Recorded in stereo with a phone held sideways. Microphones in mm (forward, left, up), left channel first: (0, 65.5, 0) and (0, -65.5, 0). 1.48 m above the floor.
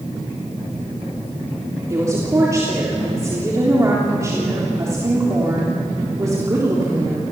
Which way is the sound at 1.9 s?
25° right (ahead or behind).